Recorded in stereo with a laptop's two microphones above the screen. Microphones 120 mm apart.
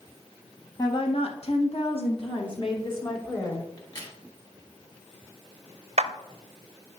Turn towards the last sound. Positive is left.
turn(degrees=-65)  # may be behind; listen again after turning